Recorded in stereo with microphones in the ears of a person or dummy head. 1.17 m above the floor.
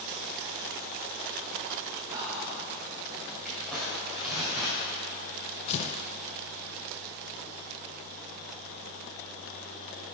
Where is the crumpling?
Centre (ahead or behind), 2.0 m.